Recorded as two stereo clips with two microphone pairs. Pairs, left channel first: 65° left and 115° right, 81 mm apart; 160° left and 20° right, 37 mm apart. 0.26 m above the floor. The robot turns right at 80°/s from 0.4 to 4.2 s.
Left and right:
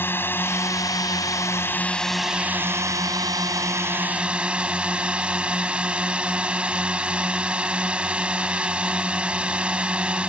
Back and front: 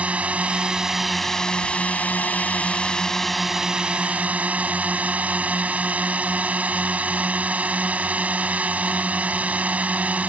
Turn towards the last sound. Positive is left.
turn(degrees=-45)